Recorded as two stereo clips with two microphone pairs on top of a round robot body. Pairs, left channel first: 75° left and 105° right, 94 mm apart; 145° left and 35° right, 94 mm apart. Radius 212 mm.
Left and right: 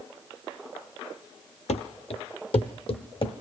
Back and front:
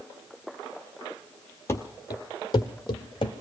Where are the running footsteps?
80° left, 0.6 m; by 3.3 s 105° left, 1.5 m.